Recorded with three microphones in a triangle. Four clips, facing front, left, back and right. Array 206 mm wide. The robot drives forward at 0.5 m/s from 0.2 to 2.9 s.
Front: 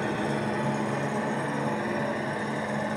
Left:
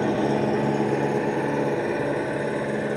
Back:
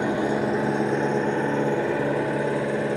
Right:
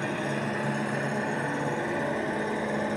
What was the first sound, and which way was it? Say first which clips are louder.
An engine running: left 8 dB, back 5 dB; 125° left.